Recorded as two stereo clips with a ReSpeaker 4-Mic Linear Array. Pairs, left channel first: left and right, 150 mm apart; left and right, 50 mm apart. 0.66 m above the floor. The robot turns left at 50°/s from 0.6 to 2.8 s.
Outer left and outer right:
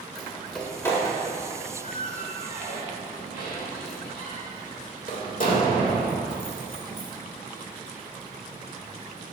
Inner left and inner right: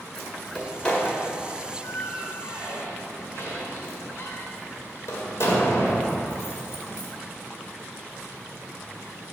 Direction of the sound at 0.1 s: 5° left (ahead or behind).